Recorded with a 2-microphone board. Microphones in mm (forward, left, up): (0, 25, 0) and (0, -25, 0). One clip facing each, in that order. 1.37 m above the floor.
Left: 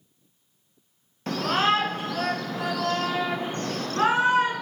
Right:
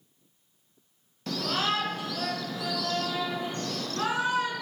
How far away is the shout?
About 0.8 m.